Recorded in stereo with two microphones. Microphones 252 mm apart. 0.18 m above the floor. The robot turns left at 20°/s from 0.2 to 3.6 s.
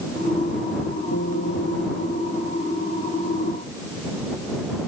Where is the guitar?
75° left (ahead or behind); by 2.6 s 55° left (ahead or behind).